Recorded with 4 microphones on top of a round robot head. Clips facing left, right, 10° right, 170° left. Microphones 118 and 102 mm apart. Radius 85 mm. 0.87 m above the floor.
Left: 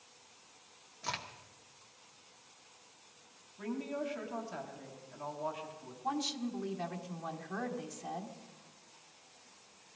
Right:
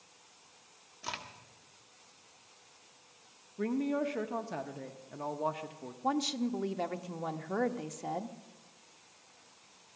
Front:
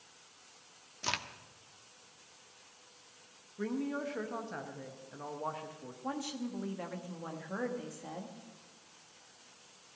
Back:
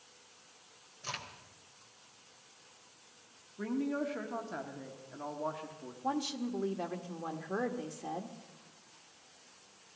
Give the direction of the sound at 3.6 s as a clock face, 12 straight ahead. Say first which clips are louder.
Right 6 dB, back 2 dB; 4 o'clock.